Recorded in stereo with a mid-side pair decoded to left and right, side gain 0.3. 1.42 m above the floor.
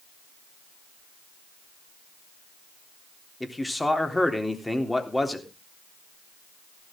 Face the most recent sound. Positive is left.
turn(degrees=15)